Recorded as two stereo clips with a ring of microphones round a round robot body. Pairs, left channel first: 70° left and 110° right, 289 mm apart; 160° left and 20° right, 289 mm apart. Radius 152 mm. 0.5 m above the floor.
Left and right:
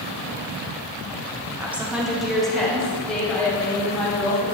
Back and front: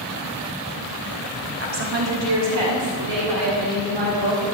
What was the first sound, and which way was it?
A woman speaking, 35° right.